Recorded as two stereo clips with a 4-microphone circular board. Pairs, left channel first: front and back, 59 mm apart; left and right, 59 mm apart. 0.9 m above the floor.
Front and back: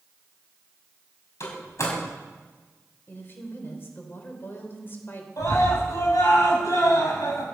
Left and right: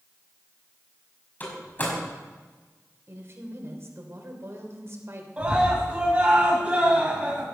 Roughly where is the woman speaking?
Ahead right.